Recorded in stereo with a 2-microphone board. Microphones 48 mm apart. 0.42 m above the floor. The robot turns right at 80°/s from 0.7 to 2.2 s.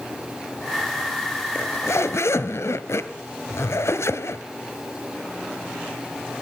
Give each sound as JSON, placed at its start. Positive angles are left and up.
{"t": 1.6, "sound": "a zipper", "azimuth_deg": 55, "distance_m": 1.2}